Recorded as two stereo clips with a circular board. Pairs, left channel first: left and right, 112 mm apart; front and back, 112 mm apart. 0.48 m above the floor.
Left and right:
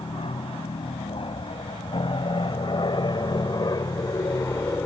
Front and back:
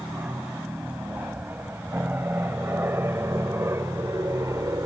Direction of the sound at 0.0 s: 105° left.